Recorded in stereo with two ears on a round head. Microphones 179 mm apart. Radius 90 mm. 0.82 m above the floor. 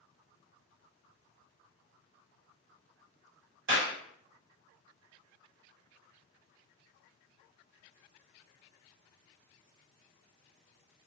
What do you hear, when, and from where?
3.7 s a clap: 65° right (ahead or behind), 1.4 m